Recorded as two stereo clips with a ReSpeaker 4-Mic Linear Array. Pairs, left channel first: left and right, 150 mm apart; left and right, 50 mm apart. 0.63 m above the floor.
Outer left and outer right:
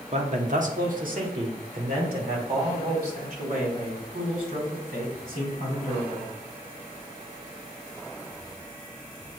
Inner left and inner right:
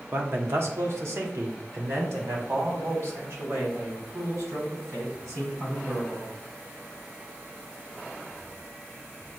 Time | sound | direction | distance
0.1 | a man speaking | 45° right (ahead or behind) | 0.7 m